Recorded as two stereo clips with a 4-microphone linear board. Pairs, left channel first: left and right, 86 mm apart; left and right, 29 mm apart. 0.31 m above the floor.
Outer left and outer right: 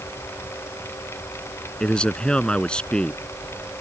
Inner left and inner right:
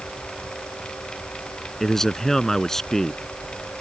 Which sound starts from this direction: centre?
A man speaking, at 1.8 s.